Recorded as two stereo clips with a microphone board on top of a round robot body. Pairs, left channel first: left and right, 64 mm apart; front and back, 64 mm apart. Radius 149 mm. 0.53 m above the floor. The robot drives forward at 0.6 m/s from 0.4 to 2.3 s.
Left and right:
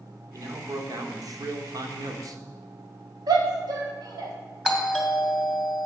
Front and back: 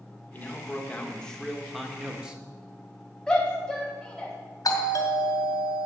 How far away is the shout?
About 2.5 m.